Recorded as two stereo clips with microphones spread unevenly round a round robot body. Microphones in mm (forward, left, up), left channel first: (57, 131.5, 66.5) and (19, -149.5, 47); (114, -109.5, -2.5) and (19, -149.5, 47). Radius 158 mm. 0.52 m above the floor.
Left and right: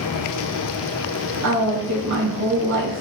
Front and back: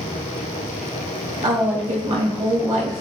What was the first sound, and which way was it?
A woman speaking, 130° right.